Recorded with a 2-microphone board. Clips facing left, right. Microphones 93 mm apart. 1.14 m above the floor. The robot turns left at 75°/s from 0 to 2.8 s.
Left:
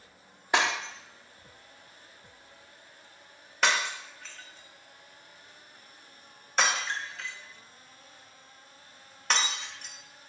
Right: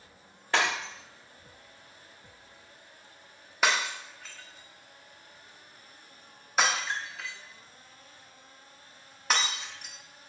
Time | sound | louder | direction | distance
0.5 | breaking glass | left 1 dB | 15° left (ahead or behind) | 0.8 m